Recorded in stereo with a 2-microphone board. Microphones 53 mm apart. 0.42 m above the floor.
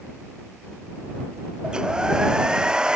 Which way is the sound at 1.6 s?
15° right (ahead or behind).